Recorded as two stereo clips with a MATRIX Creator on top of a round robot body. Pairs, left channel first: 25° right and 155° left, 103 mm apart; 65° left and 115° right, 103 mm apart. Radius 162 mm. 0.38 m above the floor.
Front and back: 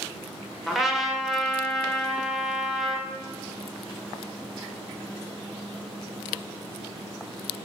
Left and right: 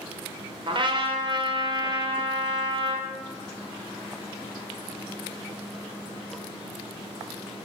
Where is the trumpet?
115° right, 0.7 m.